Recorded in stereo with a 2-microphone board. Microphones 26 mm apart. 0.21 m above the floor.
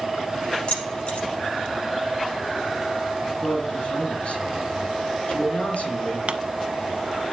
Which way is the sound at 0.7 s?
40° left (ahead or behind).